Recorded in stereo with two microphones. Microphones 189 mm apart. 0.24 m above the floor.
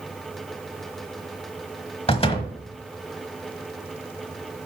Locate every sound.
2.1 s a door slam: 30° left (ahead or behind), 1.1 m